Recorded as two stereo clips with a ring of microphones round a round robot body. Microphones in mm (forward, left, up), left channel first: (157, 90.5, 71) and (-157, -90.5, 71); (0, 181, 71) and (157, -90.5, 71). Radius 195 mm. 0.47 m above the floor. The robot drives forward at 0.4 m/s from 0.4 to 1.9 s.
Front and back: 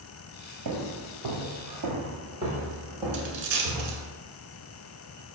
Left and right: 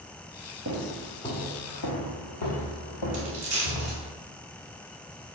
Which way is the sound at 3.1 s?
170° right.